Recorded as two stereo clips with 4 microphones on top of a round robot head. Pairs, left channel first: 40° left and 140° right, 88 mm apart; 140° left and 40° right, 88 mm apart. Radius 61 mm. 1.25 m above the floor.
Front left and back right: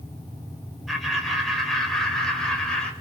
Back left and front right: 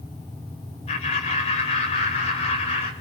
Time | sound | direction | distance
0.9 | laughter | 130° left | 6.5 m